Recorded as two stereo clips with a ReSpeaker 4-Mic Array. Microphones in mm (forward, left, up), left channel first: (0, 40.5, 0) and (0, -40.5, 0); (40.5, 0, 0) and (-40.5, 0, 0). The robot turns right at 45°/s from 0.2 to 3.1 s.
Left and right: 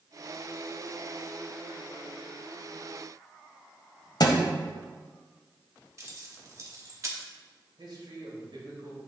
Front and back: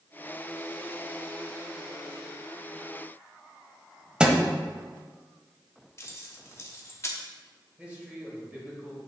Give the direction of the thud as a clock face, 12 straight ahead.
9 o'clock.